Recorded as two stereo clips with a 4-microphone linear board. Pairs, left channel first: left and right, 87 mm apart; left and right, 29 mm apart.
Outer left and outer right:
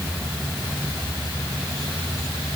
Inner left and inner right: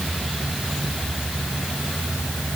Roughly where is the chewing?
I don't hear chewing.